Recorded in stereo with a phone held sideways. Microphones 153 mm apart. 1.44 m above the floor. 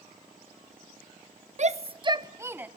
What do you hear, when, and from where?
1.6 s a shout: 50° right (ahead or behind), 0.7 m; by 2.7 s 10° right (ahead or behind), 0.9 m